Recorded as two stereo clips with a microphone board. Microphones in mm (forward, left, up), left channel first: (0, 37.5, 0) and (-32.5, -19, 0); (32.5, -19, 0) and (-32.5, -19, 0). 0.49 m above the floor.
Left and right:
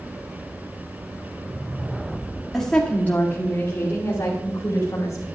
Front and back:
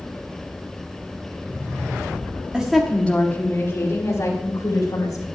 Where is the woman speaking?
130° left, 1.3 m; by 5.3 s 10° left, 3.5 m.